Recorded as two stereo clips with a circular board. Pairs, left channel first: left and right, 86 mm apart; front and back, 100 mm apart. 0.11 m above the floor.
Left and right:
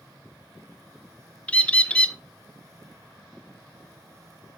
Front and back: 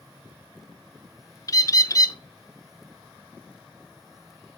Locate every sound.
1.5 s a bird: 25° left, 0.6 m